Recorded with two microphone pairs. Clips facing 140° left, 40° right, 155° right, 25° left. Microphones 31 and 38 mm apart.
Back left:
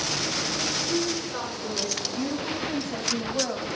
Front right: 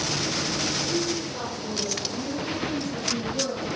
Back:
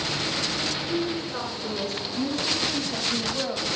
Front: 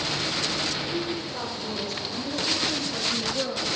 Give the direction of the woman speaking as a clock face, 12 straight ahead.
6 o'clock.